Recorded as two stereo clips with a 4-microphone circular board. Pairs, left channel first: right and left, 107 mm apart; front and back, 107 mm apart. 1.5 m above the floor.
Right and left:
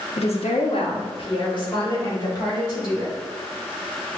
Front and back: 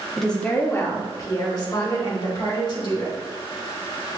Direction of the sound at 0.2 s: 90° right.